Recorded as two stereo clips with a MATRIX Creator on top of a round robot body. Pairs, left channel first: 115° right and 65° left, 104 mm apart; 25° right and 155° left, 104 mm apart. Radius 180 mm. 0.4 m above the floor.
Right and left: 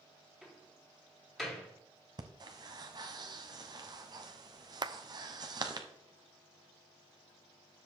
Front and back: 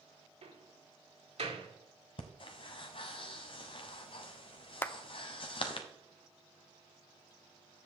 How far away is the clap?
About 0.7 m.